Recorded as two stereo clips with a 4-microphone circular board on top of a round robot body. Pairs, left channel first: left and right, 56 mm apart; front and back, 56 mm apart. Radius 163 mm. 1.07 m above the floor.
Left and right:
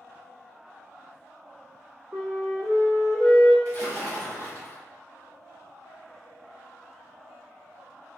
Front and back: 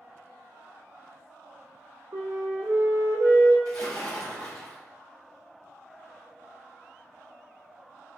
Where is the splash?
30° left, 0.8 m.